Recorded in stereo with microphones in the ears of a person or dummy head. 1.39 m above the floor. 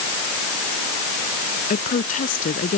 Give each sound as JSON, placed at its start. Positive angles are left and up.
{"t": 1.7, "sound": "a woman speaking", "side_deg": 45}